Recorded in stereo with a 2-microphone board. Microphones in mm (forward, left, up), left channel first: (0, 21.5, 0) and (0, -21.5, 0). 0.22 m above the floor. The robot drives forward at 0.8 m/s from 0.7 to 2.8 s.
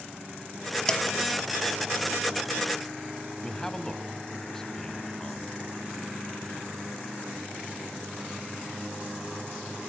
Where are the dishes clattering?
20° left (ahead or behind), 1.2 m; by 1.1 s 15° left (ahead or behind), 1.3 m.